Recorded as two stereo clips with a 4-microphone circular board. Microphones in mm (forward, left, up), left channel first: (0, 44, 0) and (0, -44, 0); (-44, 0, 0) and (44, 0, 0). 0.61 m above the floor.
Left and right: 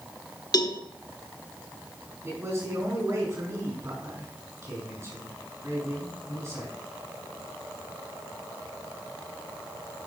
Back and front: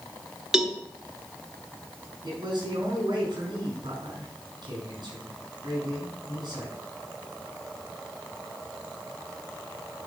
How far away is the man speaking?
About 4.5 m.